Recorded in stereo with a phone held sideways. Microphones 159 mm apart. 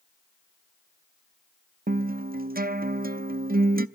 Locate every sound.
1.9 s a guitar: 65° right (ahead or behind), 0.6 m